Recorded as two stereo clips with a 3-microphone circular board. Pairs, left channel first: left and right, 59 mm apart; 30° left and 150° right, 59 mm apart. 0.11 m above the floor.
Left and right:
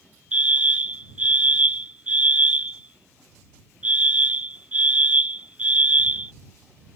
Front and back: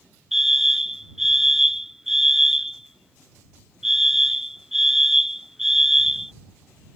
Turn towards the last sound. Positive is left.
turn(degrees=-75)